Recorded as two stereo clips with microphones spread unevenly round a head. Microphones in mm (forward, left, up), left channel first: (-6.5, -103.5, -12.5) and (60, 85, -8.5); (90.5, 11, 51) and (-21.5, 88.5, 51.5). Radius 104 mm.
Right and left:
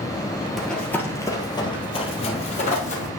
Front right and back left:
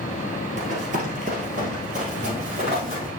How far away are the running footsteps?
About 1.7 m.